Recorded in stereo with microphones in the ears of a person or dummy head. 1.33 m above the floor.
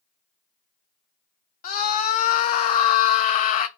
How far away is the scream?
About 0.6 m.